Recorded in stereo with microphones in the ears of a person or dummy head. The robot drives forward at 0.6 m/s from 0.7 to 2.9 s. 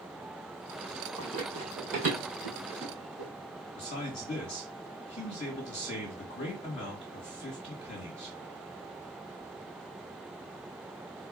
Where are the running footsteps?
25° right (ahead or behind), 1.7 m; by 3.3 s 50° right (ahead or behind), 2.5 m.